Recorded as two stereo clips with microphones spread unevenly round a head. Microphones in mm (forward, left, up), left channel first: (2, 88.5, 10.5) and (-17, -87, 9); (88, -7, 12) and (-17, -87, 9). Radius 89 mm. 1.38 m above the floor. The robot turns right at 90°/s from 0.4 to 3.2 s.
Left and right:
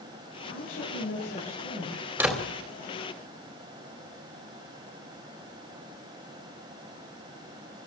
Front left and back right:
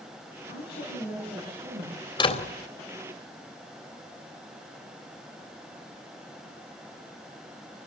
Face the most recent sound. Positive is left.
turn(degrees=75)